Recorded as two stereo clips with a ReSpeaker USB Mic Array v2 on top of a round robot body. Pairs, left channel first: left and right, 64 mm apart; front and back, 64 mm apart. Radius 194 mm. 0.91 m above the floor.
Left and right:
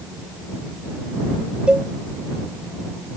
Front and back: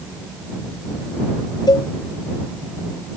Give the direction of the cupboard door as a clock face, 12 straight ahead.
I don't hear a cupboard door.